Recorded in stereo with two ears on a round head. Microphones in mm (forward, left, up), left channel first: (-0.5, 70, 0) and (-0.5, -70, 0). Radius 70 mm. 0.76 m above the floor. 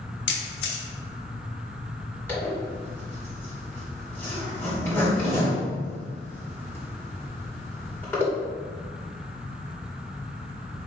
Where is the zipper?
15° left (ahead or behind), 2.5 m.